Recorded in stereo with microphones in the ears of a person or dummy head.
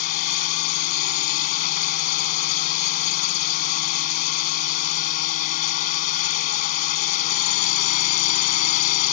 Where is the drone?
50° left (ahead or behind).